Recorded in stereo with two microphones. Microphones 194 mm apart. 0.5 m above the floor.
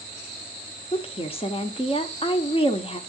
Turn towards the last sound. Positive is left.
turn(degrees=30)  # may be behind; listen again after turning